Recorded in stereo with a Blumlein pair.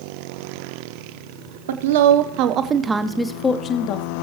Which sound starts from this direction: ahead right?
A woman speaking, at 1.7 s.